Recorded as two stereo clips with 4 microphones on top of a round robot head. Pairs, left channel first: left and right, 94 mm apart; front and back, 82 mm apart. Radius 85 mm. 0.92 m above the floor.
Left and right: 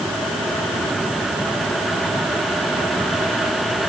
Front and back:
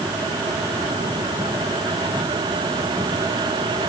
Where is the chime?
I don't hear a chime.